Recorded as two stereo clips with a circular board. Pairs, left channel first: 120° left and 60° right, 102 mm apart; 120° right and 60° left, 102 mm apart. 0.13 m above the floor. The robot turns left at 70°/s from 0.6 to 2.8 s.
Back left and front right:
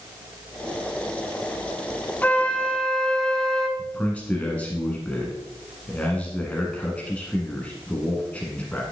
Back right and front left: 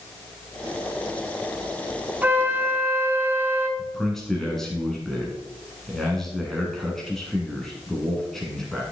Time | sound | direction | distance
2.2 | a flute | 90° left | 0.9 m
3.8 | a man speaking | 165° left | 1.6 m